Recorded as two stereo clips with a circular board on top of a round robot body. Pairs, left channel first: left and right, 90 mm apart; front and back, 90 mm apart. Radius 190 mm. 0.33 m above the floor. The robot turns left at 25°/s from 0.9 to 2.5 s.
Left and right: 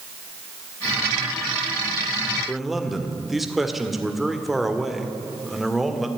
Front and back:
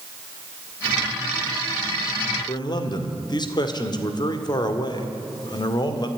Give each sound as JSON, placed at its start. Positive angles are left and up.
{"t": 2.5, "sound": "a man speaking", "azimuth_deg": 0, "distance_m": 2.0}